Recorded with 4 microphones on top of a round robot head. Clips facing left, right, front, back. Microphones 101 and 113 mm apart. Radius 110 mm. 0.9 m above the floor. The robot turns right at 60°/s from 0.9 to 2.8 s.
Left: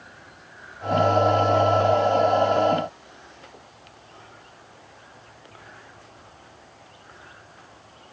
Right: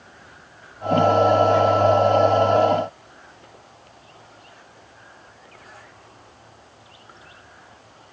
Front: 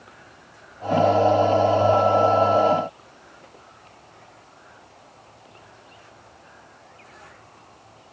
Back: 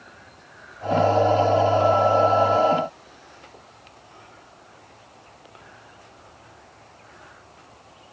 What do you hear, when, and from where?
Only background noise.